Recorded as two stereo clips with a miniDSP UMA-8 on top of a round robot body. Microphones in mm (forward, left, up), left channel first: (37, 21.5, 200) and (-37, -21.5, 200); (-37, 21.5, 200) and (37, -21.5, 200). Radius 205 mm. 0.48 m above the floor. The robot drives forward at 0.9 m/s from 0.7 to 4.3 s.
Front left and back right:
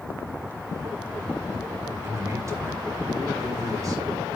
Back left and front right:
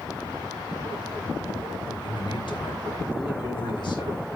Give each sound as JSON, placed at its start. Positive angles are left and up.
{"t": 2.0, "sound": "a man speaking", "azimuth_deg": 155, "distance_m": 2.5}